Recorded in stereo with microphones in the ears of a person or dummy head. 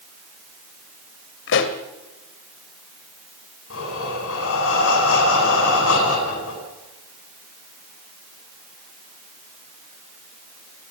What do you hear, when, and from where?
1.5 s a pop: 60° left (ahead or behind), 2.5 m
3.7 s breathing: 85° left, 9.5 m